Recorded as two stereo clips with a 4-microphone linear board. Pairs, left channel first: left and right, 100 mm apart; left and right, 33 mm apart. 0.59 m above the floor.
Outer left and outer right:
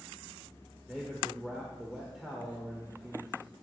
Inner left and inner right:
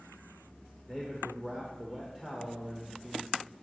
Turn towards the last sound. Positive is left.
turn(degrees=-5)  # may be behind; listen again after turning